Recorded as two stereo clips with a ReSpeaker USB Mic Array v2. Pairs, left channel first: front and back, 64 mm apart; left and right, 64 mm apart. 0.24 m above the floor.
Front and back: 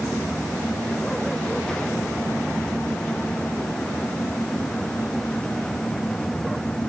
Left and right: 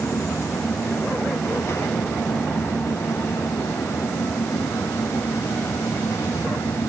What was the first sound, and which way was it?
Only background noise.